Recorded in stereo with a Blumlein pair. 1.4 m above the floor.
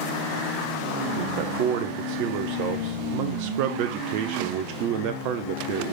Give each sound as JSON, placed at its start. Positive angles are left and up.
{"t": 1.2, "sound": "a man speaking", "azimuth_deg": -45, "distance_m": 0.7}